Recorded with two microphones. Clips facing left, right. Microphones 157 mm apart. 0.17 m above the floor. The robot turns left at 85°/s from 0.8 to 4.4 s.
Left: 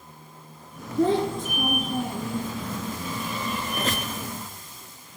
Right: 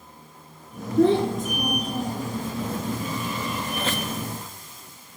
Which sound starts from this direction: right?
A child speaking, at 1.0 s.